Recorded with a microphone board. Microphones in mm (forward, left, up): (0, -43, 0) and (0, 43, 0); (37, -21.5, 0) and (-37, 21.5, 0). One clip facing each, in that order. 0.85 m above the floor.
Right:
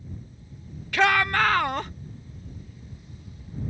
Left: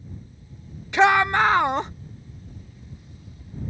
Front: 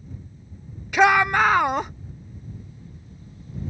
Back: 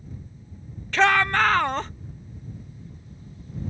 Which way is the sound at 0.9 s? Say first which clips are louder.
Left 4 dB, front 3 dB; 35° left.